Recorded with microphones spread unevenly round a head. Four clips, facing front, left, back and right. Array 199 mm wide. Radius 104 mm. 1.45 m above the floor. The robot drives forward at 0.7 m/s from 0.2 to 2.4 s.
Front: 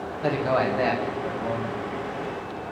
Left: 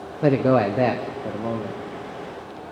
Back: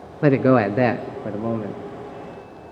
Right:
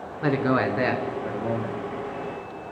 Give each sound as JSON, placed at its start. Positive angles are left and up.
{"t": 0.2, "sound": "a man speaking", "azimuth_deg": 160, "distance_m": 0.8}